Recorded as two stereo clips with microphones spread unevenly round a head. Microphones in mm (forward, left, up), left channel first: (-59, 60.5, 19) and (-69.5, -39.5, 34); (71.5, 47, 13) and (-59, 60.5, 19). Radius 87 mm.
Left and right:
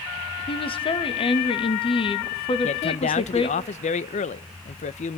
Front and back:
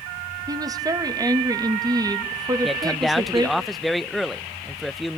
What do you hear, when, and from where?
0.5 s a woman speaking: 110° left, 2 m
2.6 s a man speaking: 85° left, 0.7 m